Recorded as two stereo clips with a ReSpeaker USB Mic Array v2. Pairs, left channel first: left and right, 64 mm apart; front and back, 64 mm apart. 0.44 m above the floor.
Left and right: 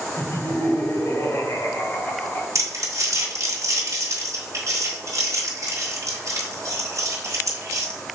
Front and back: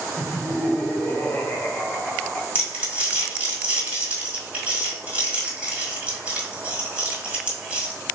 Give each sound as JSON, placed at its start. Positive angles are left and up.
{"t": 0.2, "sound": "laughter", "azimuth_deg": 70, "distance_m": 2.0}
{"t": 2.5, "sound": "crumpling", "azimuth_deg": -115, "distance_m": 1.6}